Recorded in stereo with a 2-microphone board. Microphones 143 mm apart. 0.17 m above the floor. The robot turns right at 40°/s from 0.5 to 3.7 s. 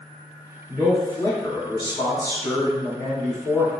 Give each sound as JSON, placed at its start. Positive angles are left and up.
{"t": 0.7, "sound": "a man speaking", "side_deg": 25, "distance_m": 1.4}